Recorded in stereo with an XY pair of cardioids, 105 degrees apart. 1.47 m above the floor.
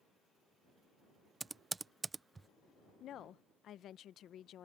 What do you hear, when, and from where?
1.4 s typing on a keyboard: 20° right
3.0 s a woman speaking: 65° left